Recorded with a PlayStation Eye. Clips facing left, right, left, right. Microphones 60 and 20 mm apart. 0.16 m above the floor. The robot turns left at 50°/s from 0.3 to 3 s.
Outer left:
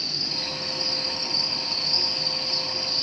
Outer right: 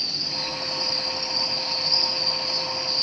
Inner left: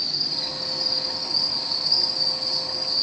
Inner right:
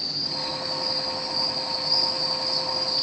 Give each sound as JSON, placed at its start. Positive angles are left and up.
{"t": 0.0, "sound": "an insect", "azimuth_deg": 100, "distance_m": 0.8}